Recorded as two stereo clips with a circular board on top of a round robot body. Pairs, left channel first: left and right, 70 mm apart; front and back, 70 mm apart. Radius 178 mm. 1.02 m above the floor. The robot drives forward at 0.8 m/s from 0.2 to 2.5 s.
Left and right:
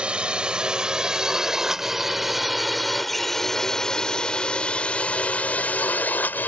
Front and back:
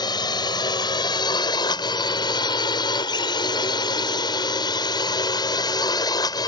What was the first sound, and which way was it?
A drone, 15° right.